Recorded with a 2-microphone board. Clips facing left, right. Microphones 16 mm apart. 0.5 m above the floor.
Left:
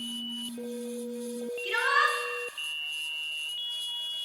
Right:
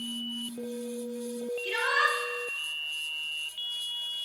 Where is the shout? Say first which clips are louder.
Left 1 dB; 80° left, 6.5 m.